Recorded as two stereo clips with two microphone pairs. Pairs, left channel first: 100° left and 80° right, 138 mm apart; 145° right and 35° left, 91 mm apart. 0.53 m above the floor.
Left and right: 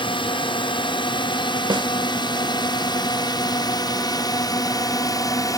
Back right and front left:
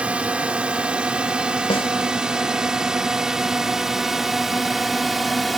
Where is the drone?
105° left; by 5.6 s 125° left.